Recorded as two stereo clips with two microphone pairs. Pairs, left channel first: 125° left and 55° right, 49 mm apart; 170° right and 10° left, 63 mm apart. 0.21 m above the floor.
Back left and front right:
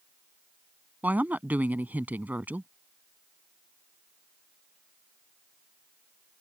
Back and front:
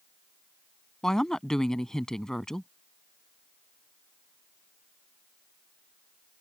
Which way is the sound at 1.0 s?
90° right.